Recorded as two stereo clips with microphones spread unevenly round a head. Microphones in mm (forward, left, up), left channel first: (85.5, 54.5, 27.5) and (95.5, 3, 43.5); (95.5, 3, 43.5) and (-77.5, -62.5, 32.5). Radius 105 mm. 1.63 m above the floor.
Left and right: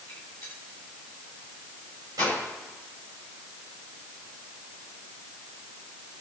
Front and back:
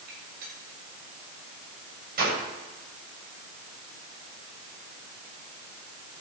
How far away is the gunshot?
About 7.5 m.